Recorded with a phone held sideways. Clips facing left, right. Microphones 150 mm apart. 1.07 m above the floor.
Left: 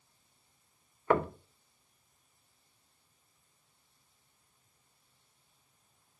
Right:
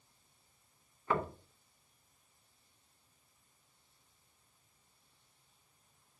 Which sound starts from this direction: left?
Knocking, at 1.1 s.